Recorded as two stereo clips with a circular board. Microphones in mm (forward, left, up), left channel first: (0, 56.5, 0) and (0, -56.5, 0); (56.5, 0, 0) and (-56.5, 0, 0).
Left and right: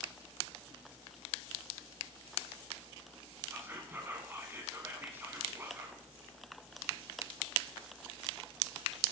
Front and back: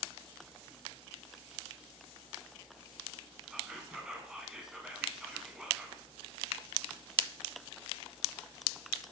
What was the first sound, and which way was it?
Whispering, 110° right.